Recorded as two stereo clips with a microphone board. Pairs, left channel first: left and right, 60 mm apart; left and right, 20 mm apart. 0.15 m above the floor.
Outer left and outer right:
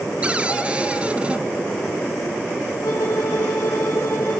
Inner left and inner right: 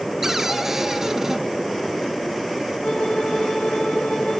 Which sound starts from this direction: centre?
A cupboard door, at 0.2 s.